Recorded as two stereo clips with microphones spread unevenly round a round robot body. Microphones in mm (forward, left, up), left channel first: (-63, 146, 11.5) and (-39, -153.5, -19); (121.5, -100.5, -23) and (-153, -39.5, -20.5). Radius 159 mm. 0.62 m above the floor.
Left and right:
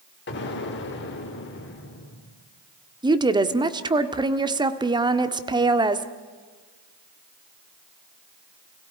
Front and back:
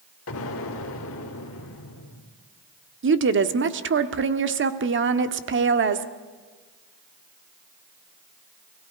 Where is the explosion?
35° left, 1.9 m.